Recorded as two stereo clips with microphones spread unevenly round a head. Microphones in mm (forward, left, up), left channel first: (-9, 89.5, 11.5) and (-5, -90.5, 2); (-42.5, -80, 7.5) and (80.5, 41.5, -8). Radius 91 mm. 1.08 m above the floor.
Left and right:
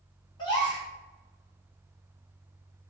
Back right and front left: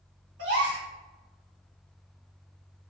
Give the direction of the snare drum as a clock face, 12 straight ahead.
I don't hear a snare drum.